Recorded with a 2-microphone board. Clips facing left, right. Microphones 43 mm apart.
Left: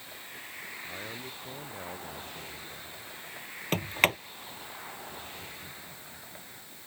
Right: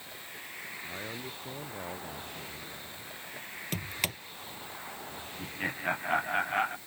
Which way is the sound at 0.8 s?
5° right (ahead or behind).